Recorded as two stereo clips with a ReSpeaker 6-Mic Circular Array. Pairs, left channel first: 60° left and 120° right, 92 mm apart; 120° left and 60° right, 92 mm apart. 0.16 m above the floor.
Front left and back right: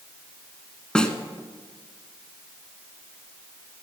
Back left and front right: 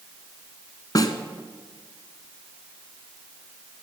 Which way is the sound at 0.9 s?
135° left.